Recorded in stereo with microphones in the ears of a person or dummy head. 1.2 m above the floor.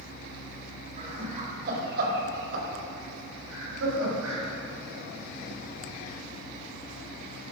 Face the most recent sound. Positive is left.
turn(degrees=-85)